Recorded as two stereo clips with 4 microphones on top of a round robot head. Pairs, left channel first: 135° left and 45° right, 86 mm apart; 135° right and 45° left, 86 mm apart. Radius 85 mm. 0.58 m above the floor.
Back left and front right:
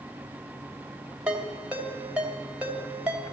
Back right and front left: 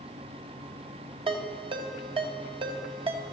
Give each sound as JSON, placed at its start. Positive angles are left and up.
{"t": 1.3, "sound": "a ringtone", "azimuth_deg": 30, "distance_m": 2.5}